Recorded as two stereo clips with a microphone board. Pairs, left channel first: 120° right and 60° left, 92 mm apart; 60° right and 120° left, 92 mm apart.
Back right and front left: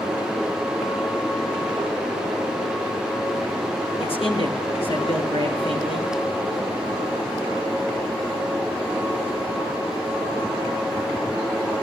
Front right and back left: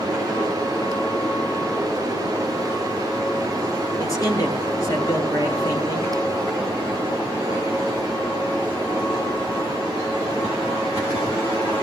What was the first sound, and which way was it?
A man speaking, 115° right.